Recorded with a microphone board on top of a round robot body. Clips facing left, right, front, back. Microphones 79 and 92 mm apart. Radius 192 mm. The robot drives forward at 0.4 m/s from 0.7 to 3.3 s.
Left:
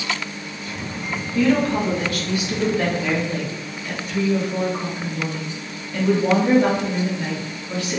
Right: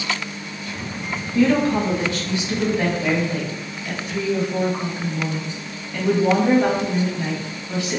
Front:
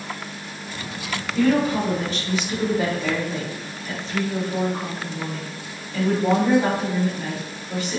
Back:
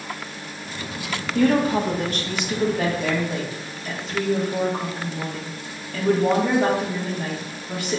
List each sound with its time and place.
1.4 s a woman speaking: 145° right, 1.6 m; by 8.0 s 155° right, 2 m